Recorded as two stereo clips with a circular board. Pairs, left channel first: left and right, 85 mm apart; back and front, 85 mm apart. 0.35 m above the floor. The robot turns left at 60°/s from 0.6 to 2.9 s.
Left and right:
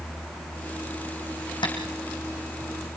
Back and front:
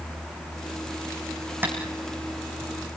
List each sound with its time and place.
1.6 s tapping: 65° left, 4 m; by 1.7 s 60° left, 4 m